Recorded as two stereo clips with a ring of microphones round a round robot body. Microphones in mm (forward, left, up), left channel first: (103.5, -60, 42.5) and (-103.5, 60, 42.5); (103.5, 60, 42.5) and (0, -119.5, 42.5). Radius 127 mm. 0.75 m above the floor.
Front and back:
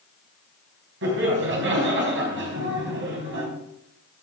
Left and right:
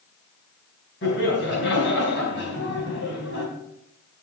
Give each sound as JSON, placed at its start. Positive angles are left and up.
{"t": 1.0, "sound": "laughter", "azimuth_deg": 105, "distance_m": 5.0}